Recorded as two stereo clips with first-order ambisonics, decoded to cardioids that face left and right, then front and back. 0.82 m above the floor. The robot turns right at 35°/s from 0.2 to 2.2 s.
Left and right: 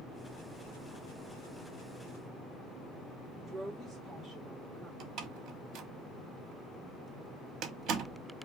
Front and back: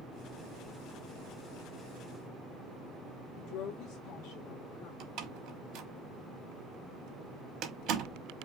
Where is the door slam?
140° right, 0.9 m.